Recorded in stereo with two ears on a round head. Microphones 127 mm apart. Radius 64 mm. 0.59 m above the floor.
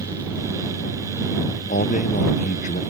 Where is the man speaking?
60° left (ahead or behind).